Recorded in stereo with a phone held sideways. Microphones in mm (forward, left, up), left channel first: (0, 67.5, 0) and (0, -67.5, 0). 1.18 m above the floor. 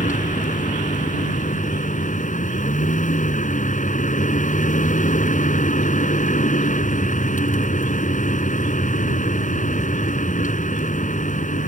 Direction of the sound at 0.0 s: 70° left (ahead or behind).